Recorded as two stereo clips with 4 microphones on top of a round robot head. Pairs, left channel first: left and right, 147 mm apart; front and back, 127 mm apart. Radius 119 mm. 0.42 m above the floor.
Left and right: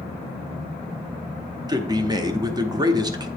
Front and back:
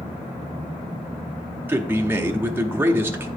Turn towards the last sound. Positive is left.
turn(degrees=-120)